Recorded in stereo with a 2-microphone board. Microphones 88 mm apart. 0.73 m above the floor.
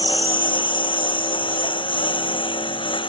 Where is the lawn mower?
65° left (ahead or behind); by 3.1 s 70° left (ahead or behind).